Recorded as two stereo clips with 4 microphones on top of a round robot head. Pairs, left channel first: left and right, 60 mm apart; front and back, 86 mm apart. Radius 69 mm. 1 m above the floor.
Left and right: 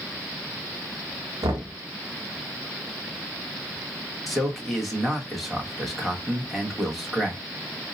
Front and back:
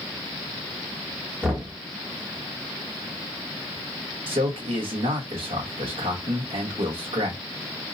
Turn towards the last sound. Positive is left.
turn(degrees=180)